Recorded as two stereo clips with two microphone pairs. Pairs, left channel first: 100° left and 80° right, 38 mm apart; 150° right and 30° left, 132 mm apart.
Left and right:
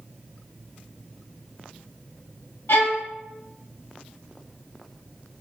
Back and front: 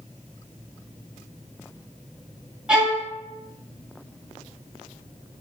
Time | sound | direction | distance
2.7 | a violin | 110° left | 0.6 m